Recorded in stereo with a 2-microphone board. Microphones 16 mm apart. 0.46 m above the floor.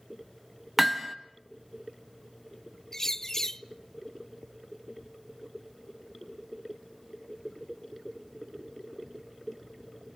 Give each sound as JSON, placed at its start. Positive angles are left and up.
{"t": 0.8, "sound": "hammering", "side_deg": -15, "distance_m": 1.6}
{"t": 2.9, "sound": "a bird", "side_deg": 30, "distance_m": 0.5}